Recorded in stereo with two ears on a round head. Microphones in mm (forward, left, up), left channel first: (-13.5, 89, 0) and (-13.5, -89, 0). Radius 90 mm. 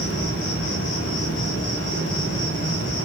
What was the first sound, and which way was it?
An insect, 70° left (ahead or behind).